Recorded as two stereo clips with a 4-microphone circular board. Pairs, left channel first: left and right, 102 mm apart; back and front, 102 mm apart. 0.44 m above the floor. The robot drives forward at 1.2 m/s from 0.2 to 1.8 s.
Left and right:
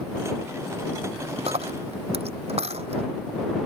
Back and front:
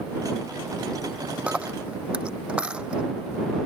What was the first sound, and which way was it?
A dropped coin, 75° right.